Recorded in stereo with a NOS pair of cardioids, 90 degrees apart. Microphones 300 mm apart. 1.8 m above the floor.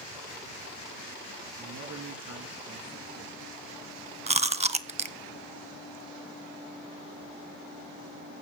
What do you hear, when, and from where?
1.6 s a man speaking: 65° right, 3.5 m
4.3 s chewing: 20° right, 1.0 m